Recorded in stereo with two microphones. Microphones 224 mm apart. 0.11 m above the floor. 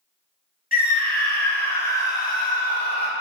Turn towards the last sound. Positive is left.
turn(degrees=40)  # may be behind; listen again after turning